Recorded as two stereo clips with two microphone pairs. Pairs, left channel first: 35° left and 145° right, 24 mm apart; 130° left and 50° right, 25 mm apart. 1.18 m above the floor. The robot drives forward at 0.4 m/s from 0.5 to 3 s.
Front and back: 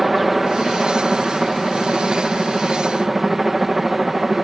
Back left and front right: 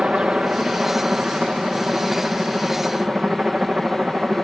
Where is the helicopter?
65° right; by 4.5 s 70° right.